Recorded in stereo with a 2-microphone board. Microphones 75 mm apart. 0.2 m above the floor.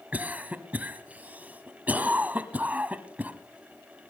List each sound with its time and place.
0.1 s a cough: 20° right (ahead or behind), 1.0 m